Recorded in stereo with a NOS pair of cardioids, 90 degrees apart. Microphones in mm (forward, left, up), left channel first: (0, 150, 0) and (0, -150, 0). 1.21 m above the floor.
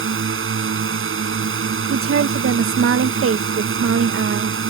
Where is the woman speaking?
50° right.